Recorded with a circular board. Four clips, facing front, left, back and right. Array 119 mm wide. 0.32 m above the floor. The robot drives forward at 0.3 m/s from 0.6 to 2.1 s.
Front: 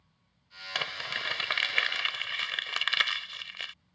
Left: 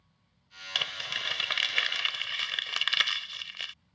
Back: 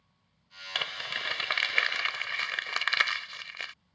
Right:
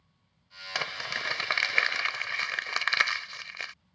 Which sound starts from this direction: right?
Crumpling, at 0.8 s.